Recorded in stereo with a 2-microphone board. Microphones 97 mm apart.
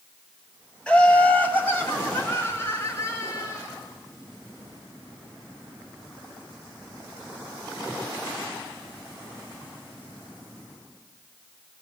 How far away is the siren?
No siren in this recording.